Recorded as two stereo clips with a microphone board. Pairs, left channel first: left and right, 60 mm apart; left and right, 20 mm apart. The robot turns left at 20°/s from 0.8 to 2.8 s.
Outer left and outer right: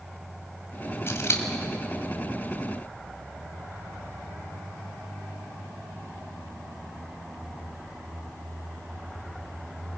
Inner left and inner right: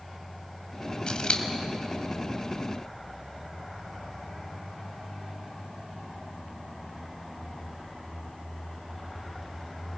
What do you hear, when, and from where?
1.1 s scissors: 45° left (ahead or behind), 1.9 m; by 1.4 s 50° left (ahead or behind), 1.9 m